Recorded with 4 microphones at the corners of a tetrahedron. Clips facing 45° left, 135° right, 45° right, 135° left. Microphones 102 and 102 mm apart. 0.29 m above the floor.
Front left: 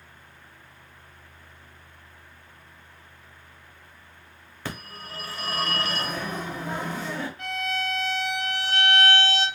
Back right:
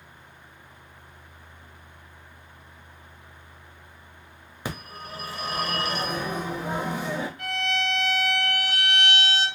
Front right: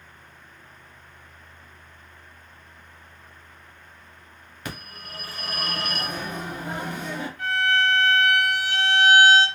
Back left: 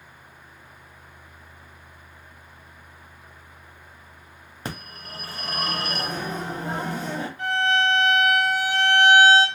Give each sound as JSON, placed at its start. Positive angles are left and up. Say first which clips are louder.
{"t": 4.7, "sound": "a phone ringing", "louder": "back right 2 dB, back left 2 dB", "azimuth_deg": 160, "distance_m": 0.8}
{"t": 7.4, "sound": "a violin", "louder": "back right 1 dB, back left 1 dB", "azimuth_deg": 105, "distance_m": 1.8}